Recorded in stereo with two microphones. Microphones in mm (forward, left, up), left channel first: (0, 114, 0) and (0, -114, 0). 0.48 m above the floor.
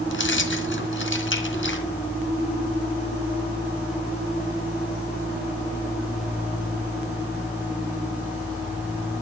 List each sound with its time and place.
0.1 s keys jangling: 65° left (ahead or behind), 3 m